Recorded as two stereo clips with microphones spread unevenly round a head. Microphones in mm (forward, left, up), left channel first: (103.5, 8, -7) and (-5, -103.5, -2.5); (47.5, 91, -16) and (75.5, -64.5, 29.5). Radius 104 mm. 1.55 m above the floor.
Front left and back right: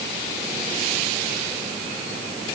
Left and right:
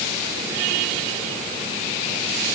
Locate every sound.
Only background noise.